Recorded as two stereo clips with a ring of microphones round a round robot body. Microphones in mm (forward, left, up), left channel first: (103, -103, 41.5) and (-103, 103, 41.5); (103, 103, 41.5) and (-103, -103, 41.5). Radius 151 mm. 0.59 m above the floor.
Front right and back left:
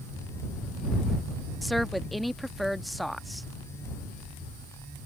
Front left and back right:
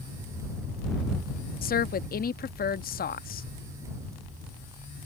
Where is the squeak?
I don't hear a squeak.